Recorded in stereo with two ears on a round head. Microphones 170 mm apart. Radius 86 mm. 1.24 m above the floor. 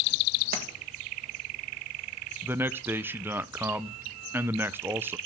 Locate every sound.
0.5 s a splash: 50° right (ahead or behind), 1.4 m
2.4 s a man speaking: 10° right (ahead or behind), 0.6 m